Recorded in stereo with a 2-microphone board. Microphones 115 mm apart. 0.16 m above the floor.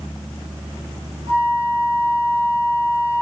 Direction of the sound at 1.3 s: 65° right (ahead or behind).